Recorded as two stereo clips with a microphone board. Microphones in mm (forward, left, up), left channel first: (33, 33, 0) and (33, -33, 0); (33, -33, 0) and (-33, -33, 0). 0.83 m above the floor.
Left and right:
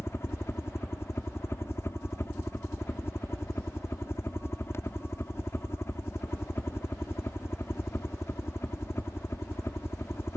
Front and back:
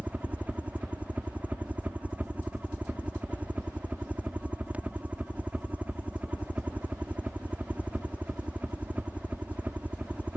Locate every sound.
0.0 s a helicopter: 120° left